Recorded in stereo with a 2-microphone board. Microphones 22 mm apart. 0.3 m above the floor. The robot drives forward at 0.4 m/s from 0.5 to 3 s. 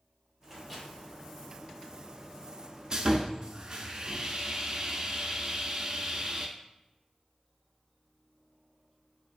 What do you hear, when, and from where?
0.4 s a microwave: 5° right (ahead or behind), 1.2 m; by 0.9 s 10° right (ahead or behind), 1.1 m
2.9 s sawing: 40° right (ahead or behind), 0.5 m; by 6.5 s 45° right (ahead or behind), 0.5 m